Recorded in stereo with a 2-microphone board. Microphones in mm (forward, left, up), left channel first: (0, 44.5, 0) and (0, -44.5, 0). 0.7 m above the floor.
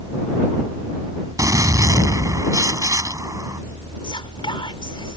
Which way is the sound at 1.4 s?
40° right (ahead or behind).